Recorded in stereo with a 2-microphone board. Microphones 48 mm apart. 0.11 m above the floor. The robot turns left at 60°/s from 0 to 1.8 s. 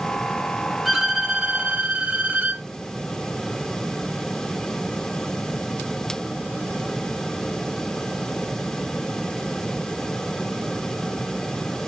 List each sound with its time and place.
0.8 s a violin: 10° right, 1.1 m; by 2.6 s 65° right, 1.1 m